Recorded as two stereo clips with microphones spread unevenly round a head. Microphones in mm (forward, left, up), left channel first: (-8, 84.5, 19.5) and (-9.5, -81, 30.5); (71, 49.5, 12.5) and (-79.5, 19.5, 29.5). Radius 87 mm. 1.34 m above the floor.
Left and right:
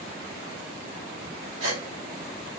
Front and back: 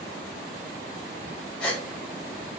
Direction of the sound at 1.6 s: 75° right.